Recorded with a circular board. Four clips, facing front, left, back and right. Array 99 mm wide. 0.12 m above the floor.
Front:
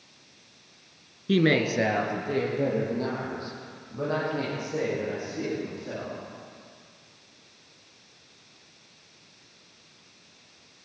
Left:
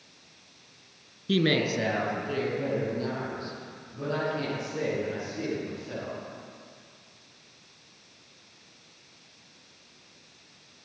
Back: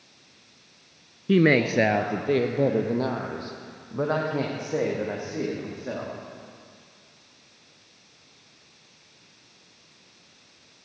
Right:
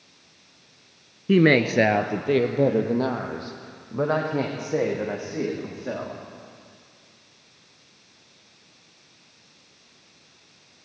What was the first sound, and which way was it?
A woman speaking, 110° right.